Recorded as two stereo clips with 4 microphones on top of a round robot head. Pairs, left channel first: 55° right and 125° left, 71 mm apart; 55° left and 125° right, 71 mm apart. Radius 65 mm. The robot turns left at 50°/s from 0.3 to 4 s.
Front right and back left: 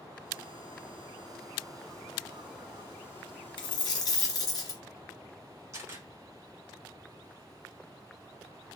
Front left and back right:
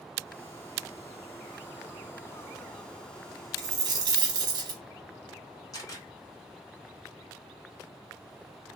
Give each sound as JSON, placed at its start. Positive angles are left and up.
{"t": 3.6, "sound": "a dropped coin", "azimuth_deg": -70, "distance_m": 1.0}
{"t": 5.7, "sound": "a camera shutter", "azimuth_deg": 85, "distance_m": 1.8}